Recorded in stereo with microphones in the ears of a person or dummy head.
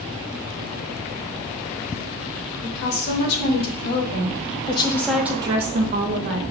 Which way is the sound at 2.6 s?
65° left (ahead or behind).